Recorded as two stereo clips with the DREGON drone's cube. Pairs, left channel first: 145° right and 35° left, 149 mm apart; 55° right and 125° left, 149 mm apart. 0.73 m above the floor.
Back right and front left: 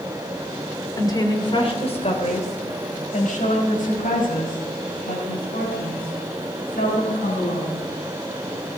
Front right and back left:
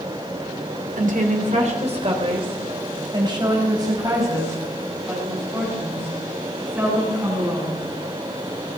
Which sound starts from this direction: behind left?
A woman speaking, at 1.0 s.